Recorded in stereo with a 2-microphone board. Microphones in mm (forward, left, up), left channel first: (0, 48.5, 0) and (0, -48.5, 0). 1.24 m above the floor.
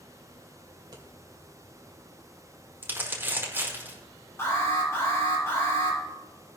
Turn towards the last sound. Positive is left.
turn(degrees=30)  # may be behind; listen again after turning